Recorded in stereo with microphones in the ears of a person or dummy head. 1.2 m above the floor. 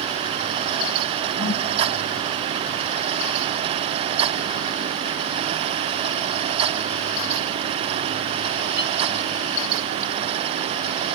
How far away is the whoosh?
About 1.2 m.